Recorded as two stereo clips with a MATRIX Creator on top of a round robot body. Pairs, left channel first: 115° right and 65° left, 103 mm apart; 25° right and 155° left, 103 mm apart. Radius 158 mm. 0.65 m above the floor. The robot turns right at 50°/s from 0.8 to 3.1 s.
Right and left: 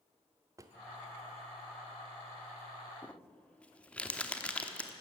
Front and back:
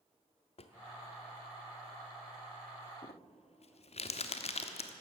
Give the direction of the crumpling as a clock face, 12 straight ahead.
1 o'clock.